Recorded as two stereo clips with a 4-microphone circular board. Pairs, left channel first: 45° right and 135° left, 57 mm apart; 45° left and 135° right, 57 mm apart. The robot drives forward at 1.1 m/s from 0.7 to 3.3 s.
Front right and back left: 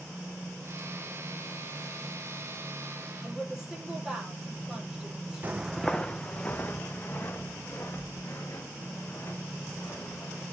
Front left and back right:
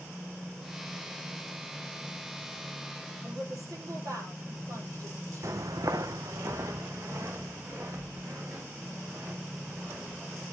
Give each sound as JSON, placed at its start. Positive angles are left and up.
{"t": 3.2, "sound": "a woman speaking", "azimuth_deg": -145, "distance_m": 5.0}
{"t": 5.4, "sound": "footsteps", "azimuth_deg": -165, "distance_m": 0.5}